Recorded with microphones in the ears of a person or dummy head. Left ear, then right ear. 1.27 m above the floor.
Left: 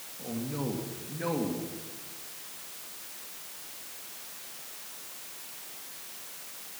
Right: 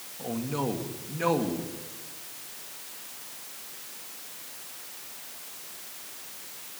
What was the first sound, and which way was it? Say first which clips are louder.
A man speaking: right 5 dB; 35° right (ahead or behind).